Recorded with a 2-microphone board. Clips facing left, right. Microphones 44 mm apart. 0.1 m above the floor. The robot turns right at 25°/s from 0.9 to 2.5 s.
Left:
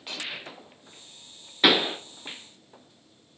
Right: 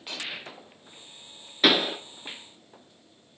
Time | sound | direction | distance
1.6 | a pop | 10° left (ahead or behind) | 0.6 m